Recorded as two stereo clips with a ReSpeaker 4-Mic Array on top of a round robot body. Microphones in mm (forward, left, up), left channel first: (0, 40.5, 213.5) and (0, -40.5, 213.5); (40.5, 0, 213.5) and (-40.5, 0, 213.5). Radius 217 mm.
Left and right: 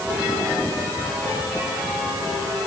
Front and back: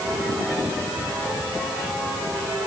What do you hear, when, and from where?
Only background noise.